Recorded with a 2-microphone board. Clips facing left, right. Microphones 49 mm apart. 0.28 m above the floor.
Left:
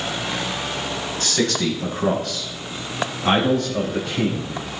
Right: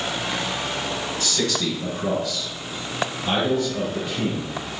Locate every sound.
1.2 s a man speaking: 50° left (ahead or behind), 2 m; by 4.5 s 70° left (ahead or behind), 3.5 m